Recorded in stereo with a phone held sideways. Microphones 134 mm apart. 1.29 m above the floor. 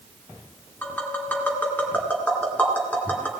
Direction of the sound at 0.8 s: 10° left (ahead or behind).